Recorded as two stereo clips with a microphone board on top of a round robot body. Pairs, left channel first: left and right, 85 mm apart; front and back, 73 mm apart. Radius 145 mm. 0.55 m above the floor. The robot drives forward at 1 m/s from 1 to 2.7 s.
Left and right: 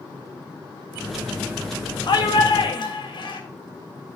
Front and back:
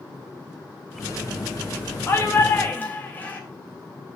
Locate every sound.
2.1 s a shout: 60° left, 3.5 m; by 3.4 s 70° left, 3 m